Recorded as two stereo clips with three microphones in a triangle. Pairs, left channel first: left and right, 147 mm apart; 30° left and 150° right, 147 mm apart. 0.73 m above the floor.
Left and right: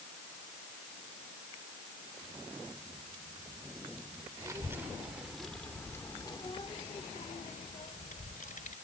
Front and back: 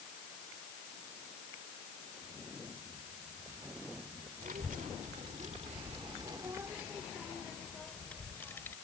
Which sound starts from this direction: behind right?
A child speaking, at 4.4 s.